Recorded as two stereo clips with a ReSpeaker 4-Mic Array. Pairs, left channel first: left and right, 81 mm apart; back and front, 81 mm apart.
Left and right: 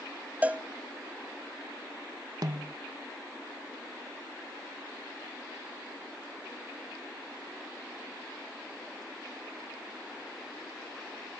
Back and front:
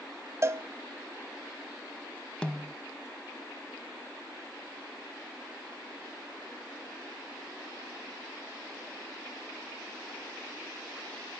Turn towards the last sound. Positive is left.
turn(degrees=-105)